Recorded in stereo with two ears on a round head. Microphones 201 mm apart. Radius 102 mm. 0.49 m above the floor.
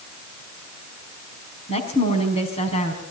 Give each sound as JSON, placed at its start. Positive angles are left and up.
{"t": 1.7, "sound": "a woman speaking", "side_deg": 30, "distance_m": 5.0}